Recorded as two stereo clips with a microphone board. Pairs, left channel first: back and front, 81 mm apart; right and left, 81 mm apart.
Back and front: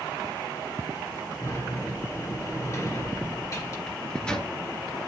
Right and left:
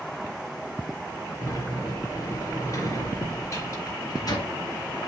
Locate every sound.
1.4 s a sliding door: 135° right, 2.5 m
3.9 s a microwave: 105° right, 2.0 m